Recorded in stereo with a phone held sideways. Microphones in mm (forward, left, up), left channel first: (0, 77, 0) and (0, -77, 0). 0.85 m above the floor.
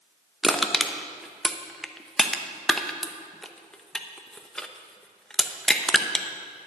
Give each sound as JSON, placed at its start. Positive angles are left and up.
{"t": 0.4, "sound": "crushing", "side_deg": 5, "distance_m": 0.7}